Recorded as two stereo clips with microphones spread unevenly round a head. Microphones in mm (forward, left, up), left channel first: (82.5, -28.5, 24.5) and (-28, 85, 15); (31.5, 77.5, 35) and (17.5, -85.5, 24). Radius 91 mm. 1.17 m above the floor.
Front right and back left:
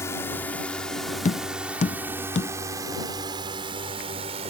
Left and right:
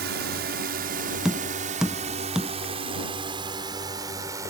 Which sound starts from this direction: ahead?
Tapping, at 1.2 s.